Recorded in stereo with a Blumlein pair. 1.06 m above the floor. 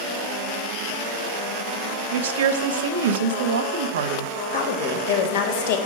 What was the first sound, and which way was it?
A woman speaking, 60° right.